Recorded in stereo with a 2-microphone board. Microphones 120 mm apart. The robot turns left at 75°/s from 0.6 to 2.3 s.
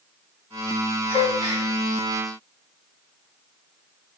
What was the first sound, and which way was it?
A gasp, 115° left.